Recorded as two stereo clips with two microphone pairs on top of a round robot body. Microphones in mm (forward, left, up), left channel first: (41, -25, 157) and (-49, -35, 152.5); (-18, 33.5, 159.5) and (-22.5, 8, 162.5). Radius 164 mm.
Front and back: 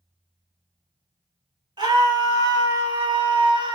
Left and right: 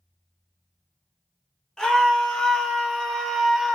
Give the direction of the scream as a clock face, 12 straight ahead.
7 o'clock.